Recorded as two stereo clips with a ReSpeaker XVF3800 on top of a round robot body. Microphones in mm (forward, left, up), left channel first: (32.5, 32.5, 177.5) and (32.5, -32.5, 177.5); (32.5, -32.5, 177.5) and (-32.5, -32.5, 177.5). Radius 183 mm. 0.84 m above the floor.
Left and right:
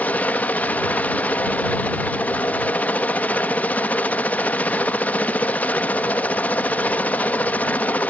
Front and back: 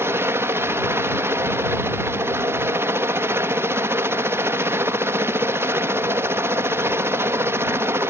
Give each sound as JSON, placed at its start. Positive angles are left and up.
{"t": 0.0, "sound": "a helicopter", "azimuth_deg": 145}